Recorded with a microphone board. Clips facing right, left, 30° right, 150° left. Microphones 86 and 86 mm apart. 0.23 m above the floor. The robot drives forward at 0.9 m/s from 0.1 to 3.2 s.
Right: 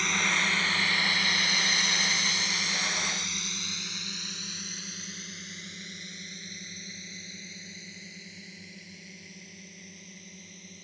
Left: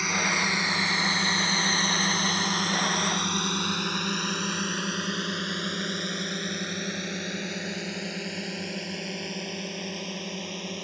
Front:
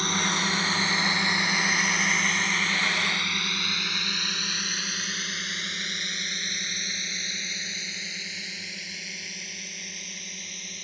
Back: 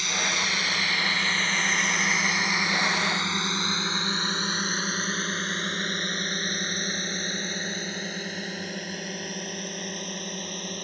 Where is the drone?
10° left; by 10.8 s 110° left.